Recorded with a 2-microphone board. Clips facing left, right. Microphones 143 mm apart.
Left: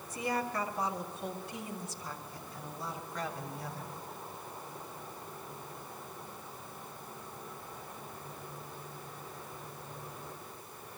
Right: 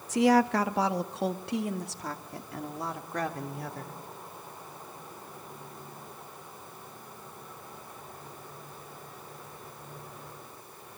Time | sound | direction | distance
0.1 | a woman speaking | 85° right | 1.1 m